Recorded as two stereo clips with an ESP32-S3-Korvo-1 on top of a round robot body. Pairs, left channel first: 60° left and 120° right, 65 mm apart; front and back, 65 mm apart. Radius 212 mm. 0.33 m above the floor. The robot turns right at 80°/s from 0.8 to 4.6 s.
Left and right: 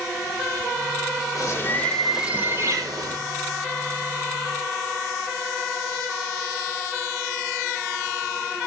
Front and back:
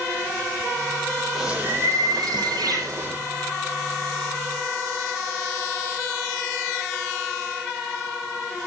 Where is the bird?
95° left, 6 m; by 3.2 s 115° right, 6 m.